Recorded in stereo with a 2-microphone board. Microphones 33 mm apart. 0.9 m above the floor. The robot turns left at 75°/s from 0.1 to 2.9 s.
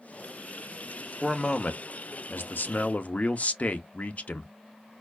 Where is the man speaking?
175° left, 0.8 m; by 4.5 s 50° left, 0.8 m.